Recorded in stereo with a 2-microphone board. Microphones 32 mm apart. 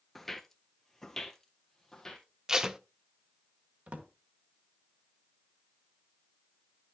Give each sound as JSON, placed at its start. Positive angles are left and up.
{"t": 0.1, "sound": "footsteps", "side_deg": 5, "distance_m": 0.6}
{"t": 2.5, "sound": "tape being pulled", "side_deg": -20, "distance_m": 0.5}
{"t": 3.9, "sound": "a drawer", "side_deg": -55, "distance_m": 1.3}